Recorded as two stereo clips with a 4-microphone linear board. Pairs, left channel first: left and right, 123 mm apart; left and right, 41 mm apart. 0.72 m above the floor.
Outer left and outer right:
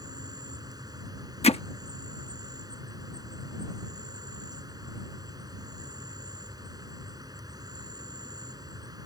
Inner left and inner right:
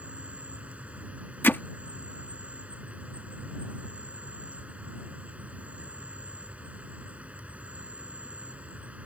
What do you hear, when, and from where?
0.0 s an insect: 30° right (ahead or behind)
1.4 s hammering: 55° left (ahead or behind)